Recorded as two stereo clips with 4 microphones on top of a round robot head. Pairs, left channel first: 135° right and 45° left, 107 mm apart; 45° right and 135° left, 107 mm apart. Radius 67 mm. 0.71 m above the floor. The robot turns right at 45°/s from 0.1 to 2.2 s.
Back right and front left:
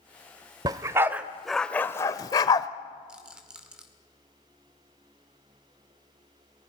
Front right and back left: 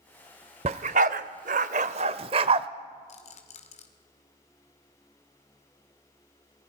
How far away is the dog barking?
About 0.7 m.